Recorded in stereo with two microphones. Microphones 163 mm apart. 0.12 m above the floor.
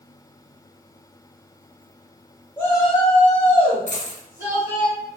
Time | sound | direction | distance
2.6 | a shout | 15° left (ahead or behind) | 1.1 m
3.9 | a dropped coin | 55° left (ahead or behind) | 0.9 m